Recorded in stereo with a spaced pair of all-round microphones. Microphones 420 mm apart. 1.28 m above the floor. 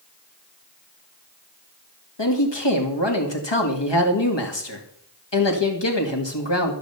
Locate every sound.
2.2 s a man speaking: 80° left, 2.0 m